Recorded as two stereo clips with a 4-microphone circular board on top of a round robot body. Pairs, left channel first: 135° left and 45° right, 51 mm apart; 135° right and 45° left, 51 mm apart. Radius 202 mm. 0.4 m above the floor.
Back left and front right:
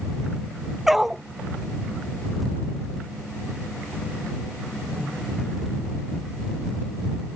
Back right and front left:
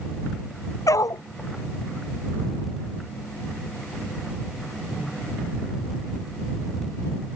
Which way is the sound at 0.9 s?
130° right.